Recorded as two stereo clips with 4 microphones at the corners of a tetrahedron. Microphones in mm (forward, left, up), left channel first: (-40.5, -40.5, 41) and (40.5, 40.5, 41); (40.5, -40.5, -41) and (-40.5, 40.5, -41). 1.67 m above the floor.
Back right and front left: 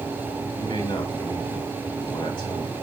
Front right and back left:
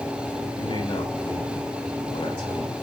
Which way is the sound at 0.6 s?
85° right.